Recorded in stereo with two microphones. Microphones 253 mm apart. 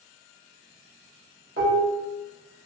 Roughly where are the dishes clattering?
Right.